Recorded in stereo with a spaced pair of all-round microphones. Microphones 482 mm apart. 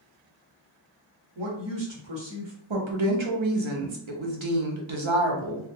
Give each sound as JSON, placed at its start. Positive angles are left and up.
{"t": 1.4, "sound": "a woman speaking", "side_deg": -60, "distance_m": 1.1}
{"t": 2.7, "sound": "a woman speaking", "side_deg": -70, "distance_m": 0.8}